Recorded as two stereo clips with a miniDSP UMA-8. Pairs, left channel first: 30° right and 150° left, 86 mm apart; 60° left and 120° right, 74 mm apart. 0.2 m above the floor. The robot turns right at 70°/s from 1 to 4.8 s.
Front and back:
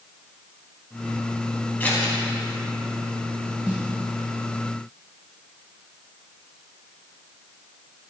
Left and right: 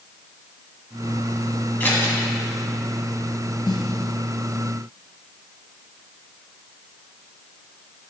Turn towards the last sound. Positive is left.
turn(degrees=155)